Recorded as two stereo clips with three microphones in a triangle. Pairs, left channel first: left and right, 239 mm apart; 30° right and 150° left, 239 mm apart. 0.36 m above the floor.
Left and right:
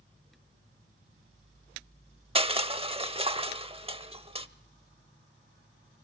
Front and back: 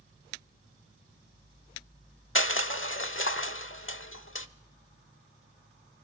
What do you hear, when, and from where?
2.4 s crushing: 25° right, 0.8 m